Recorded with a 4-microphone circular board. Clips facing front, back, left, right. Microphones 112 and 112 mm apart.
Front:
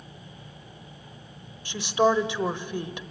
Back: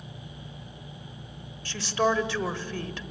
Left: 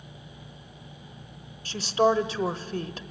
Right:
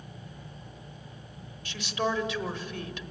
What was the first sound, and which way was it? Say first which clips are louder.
A woman speaking: front 3 dB, left 8 dB; 60° left.